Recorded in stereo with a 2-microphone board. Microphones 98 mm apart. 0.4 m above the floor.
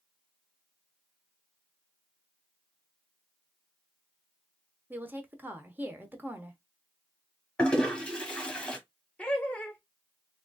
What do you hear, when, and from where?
4.9 s a woman speaking: 20° right (ahead or behind), 0.8 m
7.6 s a toilet flushing: 10° left (ahead or behind), 1.2 m
9.2 s laughter: 15° left (ahead or behind), 1.0 m